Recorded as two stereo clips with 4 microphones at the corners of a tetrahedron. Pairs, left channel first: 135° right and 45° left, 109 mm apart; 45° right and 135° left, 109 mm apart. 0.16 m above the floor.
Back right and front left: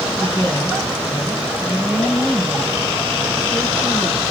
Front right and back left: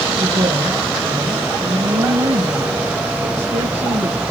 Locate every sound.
0.2 s a woman speaking: 135° left, 4 m